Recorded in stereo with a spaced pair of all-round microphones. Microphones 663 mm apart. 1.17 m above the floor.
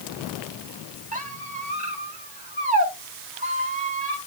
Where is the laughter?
I don't hear laughter.